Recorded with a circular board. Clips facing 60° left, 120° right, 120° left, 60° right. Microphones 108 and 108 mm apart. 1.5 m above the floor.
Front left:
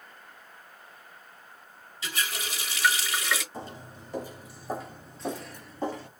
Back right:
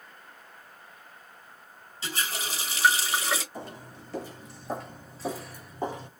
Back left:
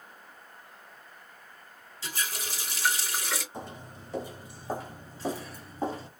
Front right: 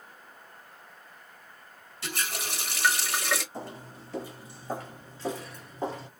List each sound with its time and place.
2.0 s a running tap: 65° right, 1.3 m
3.5 s footsteps: 70° left, 1.6 m; by 6.1 s 165° right, 1.6 m